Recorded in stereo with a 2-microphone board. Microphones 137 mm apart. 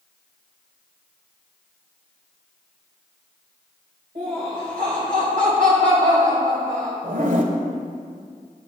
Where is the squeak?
I don't hear a squeak.